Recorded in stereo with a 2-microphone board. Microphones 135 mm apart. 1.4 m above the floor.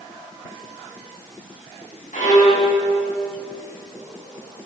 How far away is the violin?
About 7.5 m.